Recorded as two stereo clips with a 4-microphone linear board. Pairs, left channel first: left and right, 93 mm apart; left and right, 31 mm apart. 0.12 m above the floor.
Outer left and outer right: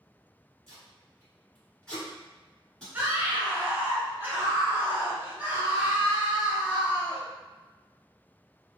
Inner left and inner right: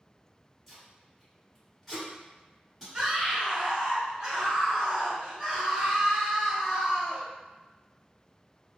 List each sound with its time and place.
0.7 s tape being pulled: 10° left (ahead or behind), 1.7 m
2.9 s a scream: 20° right (ahead or behind), 1.2 m